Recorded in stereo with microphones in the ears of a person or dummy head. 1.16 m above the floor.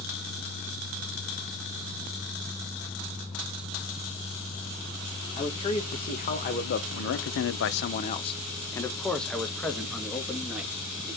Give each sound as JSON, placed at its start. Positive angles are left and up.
{"t": 5.4, "sound": "a man speaking", "side_deg": 35, "distance_m": 1.3}